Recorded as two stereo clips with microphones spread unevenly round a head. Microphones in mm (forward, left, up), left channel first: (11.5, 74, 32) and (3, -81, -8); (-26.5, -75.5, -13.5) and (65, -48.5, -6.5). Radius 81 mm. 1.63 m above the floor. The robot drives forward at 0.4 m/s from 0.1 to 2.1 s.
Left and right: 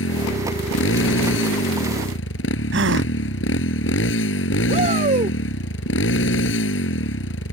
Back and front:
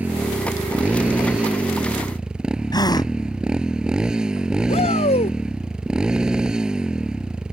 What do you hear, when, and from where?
0.0 s a motorcycle: 100° left
2.7 s a gasp: 115° right
4.7 s a shout: 150° right